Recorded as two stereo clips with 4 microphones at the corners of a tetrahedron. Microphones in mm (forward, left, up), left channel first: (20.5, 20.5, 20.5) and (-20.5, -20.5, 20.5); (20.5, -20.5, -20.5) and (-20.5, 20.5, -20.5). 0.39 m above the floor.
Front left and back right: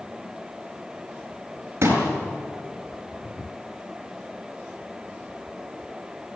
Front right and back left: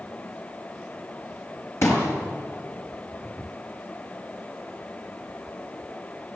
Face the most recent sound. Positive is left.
turn(degrees=-90)